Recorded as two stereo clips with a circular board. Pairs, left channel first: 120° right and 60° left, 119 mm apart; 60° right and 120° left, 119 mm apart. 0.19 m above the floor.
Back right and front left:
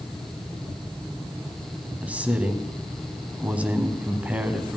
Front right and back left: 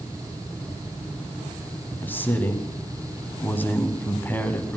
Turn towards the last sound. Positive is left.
turn(degrees=-5)